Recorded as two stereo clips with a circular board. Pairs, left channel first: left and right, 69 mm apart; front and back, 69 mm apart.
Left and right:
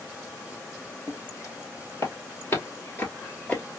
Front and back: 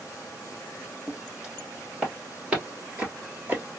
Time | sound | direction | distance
1.1 | footsteps | 95° left | 2.5 m